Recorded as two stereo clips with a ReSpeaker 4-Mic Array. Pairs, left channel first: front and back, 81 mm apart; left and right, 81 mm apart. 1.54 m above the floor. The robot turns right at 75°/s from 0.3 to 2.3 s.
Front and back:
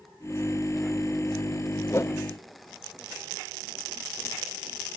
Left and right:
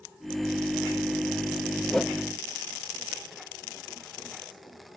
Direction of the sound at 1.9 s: 5° left.